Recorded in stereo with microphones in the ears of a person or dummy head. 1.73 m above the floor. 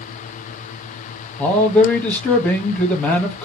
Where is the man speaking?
5° left (ahead or behind), 1.0 m.